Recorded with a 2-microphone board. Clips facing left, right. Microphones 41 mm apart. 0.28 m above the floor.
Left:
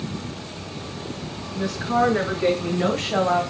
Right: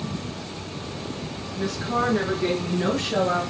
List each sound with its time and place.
1.6 s a woman speaking: 10° left (ahead or behind), 4.5 m; by 3.4 s 20° left (ahead or behind), 2.0 m